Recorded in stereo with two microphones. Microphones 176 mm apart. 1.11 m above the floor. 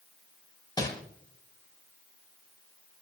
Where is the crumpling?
25° left (ahead or behind), 6.5 m.